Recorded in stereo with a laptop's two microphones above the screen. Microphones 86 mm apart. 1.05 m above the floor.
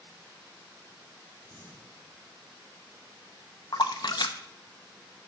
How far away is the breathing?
About 2.5 m.